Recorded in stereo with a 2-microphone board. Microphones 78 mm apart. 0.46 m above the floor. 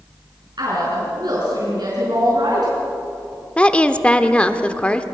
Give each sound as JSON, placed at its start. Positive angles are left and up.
{"t": 0.6, "sound": "a woman speaking", "side_deg": -65, "distance_m": 6.0}
{"t": 3.6, "sound": "a woman speaking", "side_deg": 15, "distance_m": 0.9}